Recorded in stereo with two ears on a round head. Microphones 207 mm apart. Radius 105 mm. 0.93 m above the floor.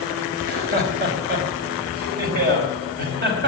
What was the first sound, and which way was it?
Laughter, 50° right (ahead or behind).